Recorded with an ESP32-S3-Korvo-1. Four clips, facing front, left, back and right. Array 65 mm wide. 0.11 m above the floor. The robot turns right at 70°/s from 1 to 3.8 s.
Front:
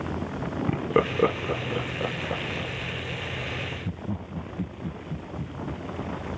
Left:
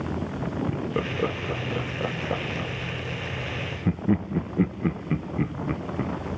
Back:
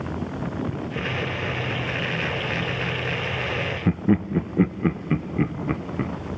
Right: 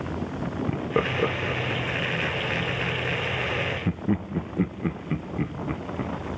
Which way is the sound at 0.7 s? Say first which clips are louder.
Right 3 dB, front 5 dB; 20° right.